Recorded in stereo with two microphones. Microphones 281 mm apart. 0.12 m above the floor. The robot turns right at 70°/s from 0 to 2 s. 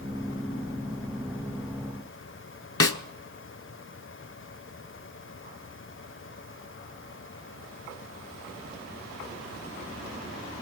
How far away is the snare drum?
About 0.8 m.